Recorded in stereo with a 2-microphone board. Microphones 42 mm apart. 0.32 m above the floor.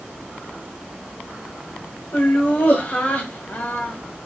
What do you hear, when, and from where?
2.1 s laughter: 45° left (ahead or behind), 1.4 m